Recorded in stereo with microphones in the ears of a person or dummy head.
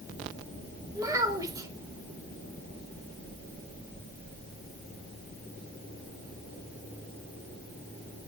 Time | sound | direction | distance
0.9 | a child speaking | 20° right (ahead or behind) | 2.5 m